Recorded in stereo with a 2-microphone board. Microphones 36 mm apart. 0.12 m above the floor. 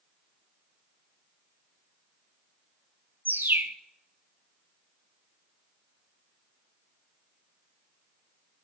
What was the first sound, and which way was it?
A bird, 70° right (ahead or behind).